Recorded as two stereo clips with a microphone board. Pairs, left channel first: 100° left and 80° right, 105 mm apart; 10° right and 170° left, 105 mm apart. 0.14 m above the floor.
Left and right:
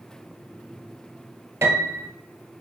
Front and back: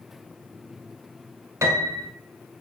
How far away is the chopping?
No chopping in this recording.